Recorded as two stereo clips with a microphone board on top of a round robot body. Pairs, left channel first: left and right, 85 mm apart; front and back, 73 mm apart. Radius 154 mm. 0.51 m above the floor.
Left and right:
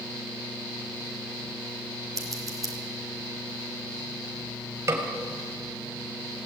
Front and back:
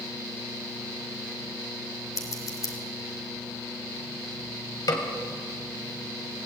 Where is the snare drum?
30° right, 3 m.